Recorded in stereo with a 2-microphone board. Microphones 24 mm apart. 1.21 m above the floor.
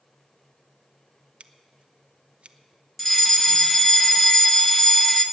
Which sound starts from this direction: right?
Scissors, at 1.4 s.